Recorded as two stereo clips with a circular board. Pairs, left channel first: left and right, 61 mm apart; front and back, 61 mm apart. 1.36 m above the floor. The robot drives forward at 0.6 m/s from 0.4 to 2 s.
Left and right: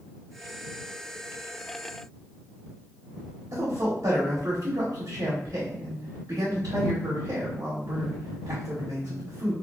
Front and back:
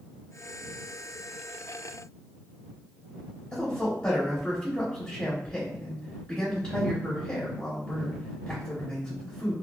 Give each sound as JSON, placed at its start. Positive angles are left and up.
{"t": 3.5, "sound": "a man speaking", "azimuth_deg": -80, "distance_m": 1.2}